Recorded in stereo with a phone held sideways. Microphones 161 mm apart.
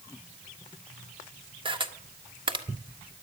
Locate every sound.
1.6 s a camera shutter: 30° right (ahead or behind), 1.3 m